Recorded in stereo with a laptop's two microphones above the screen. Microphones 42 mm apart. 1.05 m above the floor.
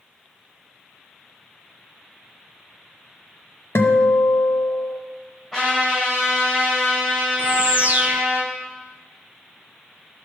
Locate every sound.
3.8 s a guitar: 75° left (ahead or behind), 0.9 m
5.5 s a trumpet: centre (ahead or behind), 4.5 m
7.4 s a bird: 35° right (ahead or behind), 0.6 m